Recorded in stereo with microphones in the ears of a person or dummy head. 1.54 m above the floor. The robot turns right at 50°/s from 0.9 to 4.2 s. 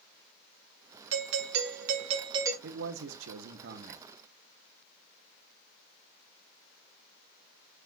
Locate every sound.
1.1 s a doorbell: 95° right, 1.2 m; by 2.5 s 20° right, 1.2 m
2.6 s a man speaking: 120° right, 1.2 m; by 4.0 s 50° right, 1.2 m